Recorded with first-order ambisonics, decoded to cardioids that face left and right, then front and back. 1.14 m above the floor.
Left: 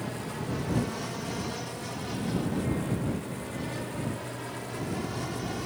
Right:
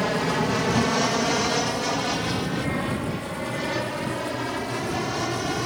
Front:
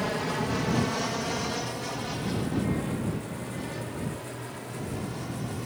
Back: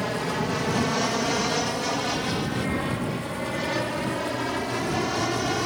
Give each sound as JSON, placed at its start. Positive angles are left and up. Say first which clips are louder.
{"t": 0.0, "sound": "an aircraft", "louder": "right 13 dB, back 2 dB", "azimuth_deg": -100}